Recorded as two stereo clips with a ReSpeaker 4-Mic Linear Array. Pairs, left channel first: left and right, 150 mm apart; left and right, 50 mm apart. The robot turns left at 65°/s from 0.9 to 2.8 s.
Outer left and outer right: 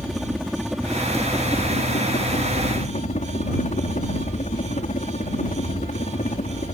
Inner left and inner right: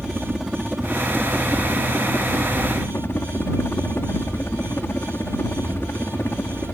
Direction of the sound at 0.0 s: Straight behind.